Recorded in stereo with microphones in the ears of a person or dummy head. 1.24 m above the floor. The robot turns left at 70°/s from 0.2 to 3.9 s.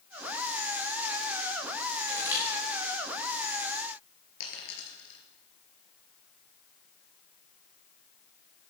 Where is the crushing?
35° right (ahead or behind), 7.5 m; by 2.4 s 10° right (ahead or behind), 7.5 m.